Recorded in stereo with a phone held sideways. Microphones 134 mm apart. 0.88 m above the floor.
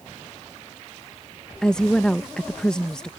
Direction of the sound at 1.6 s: 5° left (ahead or behind).